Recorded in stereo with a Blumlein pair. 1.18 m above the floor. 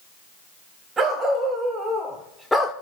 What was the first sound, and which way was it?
A dog barking, 15° right.